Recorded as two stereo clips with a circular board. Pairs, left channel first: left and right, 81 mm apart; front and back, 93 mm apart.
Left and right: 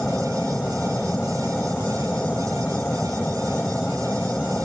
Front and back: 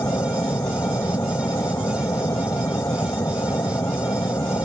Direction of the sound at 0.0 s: 25° left.